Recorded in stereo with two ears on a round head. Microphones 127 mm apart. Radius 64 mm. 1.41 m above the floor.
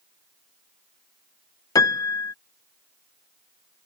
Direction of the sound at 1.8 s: 25° left (ahead or behind).